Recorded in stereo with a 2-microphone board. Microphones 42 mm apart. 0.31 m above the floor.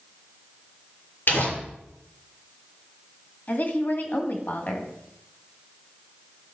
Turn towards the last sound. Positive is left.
turn(degrees=50)  # may be behind; listen again after turning